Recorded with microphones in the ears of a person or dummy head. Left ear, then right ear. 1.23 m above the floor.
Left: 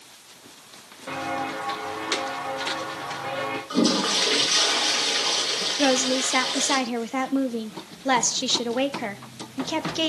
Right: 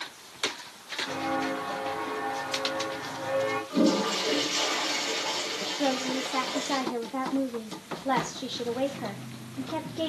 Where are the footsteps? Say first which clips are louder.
Left 3 dB; 15° left (ahead or behind), 5 m; by 3.6 s 40° left (ahead or behind), 7.5 m.